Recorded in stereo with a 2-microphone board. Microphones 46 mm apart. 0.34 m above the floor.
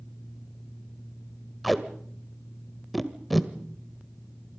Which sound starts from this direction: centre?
Tape being pulled, at 1.6 s.